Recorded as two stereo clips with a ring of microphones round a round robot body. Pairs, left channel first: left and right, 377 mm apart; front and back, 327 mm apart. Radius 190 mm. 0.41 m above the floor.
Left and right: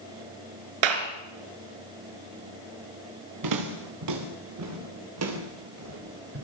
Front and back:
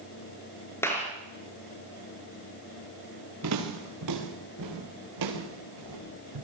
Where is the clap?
85° right, 4.5 m.